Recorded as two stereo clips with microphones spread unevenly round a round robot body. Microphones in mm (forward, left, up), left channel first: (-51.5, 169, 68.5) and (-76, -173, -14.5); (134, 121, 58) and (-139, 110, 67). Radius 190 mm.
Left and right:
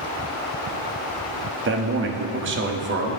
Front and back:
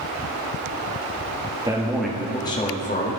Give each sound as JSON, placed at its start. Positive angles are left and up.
{"t": 1.6, "sound": "a man speaking", "azimuth_deg": -105, "distance_m": 1.5}